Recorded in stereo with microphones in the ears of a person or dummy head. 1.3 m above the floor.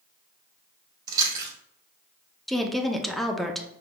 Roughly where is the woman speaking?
Centre.